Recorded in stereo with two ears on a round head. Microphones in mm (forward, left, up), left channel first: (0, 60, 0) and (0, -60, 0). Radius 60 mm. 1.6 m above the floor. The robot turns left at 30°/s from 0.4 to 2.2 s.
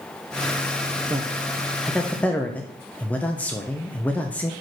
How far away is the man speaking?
About 0.7 m.